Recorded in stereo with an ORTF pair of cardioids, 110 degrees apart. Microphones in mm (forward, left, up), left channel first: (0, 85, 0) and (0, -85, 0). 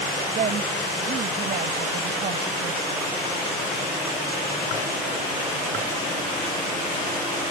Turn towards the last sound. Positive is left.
turn(degrees=-55)